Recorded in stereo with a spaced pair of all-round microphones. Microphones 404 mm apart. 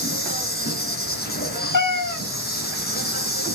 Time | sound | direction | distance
0.0 | an insect | 25° left (ahead or behind) | 2.5 m
1.7 | a cat meowing | 50° left (ahead or behind) | 1.0 m